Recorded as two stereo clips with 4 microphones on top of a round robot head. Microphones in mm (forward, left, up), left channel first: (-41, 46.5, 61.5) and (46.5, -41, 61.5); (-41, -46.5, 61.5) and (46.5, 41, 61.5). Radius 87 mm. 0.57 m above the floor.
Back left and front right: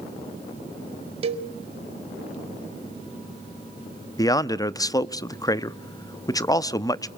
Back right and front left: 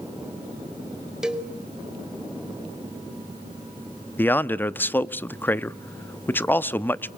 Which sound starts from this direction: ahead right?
A cowbell, at 1.2 s.